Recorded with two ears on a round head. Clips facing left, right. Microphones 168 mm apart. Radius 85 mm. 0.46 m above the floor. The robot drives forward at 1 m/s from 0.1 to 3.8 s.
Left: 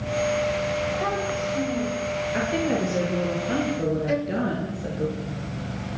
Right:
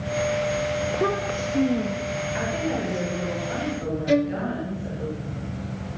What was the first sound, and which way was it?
A child speaking, 50° right (ahead or behind).